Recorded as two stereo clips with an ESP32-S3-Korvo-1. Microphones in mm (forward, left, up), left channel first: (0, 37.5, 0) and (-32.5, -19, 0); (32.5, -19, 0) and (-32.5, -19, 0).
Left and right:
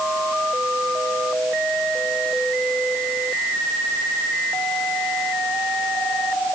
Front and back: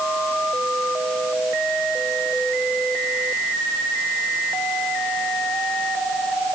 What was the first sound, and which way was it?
Only background noise.